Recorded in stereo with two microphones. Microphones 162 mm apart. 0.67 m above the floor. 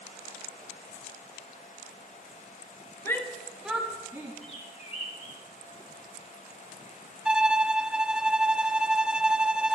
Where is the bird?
40° left (ahead or behind), 8.5 m.